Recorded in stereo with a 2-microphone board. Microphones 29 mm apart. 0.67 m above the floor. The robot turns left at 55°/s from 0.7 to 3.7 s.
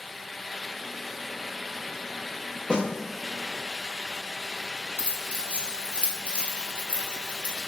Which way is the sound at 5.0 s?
50° left (ahead or behind).